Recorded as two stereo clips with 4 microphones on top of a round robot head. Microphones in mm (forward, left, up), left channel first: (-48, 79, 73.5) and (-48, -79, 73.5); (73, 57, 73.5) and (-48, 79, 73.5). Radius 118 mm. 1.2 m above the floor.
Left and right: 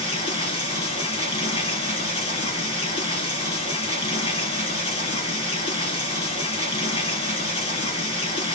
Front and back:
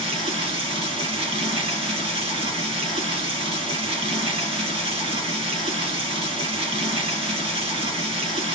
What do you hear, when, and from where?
0.0 s running water: 135° left, 1.9 m